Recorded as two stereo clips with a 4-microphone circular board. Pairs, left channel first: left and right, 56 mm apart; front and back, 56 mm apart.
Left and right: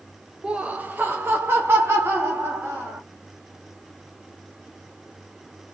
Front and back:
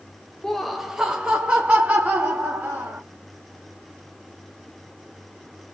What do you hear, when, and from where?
0.4 s laughter: 70° right, 0.5 m; by 3.0 s 125° right, 1.5 m